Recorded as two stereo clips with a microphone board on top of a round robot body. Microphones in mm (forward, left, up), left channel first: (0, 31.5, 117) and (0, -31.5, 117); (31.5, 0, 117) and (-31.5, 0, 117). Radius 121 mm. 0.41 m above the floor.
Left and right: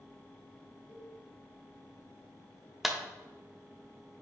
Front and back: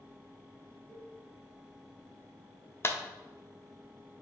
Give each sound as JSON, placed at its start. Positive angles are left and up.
{"t": 0.9, "sound": "a cowbell", "azimuth_deg": 75, "distance_m": 3.5}
{"t": 2.8, "sound": "a clap", "azimuth_deg": -5, "distance_m": 1.2}